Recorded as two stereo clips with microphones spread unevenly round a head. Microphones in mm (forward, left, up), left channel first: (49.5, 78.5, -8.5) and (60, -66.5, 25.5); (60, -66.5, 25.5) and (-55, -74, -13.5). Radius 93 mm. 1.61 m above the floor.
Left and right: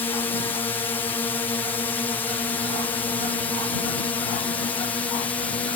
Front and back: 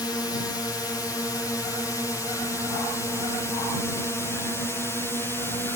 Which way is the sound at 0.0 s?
70° left.